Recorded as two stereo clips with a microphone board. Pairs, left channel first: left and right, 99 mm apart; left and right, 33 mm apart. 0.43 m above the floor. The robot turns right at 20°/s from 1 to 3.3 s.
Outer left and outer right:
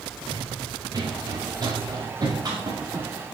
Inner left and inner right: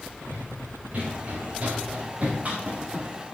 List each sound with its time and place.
0.3 s running footsteps: 50° right (ahead or behind), 4 m; by 3.1 s 45° right (ahead or behind), 4 m